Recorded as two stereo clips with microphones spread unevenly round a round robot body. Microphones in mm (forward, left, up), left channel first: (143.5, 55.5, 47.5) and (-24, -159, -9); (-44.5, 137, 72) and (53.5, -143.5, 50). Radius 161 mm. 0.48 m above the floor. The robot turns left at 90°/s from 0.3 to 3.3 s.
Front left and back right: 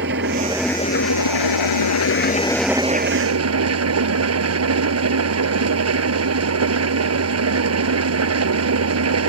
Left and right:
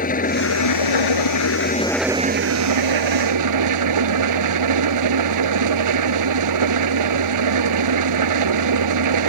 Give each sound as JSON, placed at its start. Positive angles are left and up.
{"t": 0.0, "sound": "an engine running", "azimuth_deg": 175}